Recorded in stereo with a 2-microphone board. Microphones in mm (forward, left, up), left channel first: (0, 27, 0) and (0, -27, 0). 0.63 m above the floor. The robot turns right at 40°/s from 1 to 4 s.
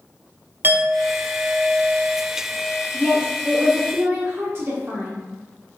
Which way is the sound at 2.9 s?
160° right.